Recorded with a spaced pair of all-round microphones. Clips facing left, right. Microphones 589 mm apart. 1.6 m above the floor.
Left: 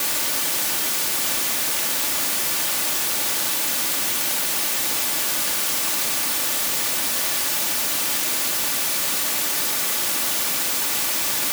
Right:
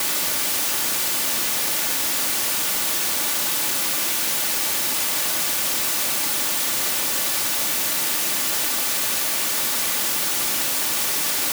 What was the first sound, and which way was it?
Only background noise.